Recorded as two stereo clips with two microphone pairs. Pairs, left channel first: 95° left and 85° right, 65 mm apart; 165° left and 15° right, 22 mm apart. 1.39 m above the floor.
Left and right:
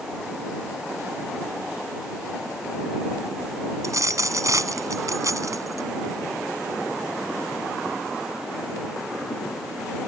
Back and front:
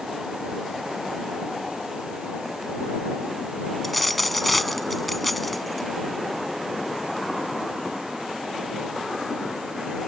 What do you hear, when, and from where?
3.8 s a dropped coin: 115° right